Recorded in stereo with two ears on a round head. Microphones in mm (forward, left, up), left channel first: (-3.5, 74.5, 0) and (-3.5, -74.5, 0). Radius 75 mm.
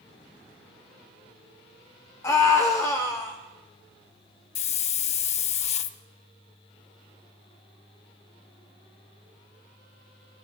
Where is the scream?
20° left (ahead or behind), 1.4 m.